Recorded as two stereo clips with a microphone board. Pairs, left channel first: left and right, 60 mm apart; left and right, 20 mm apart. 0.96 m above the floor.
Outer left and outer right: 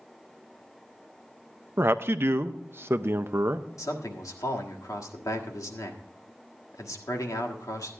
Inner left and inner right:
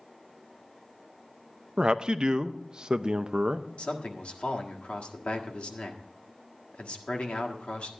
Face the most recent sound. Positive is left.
turn(degrees=85)